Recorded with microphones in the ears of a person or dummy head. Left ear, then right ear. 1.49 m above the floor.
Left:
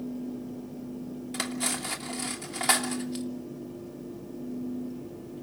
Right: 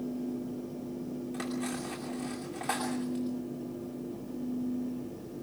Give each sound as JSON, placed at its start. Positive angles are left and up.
{"t": 1.3, "sound": "cutlery clinking", "side_deg": 70, "distance_m": 2.5}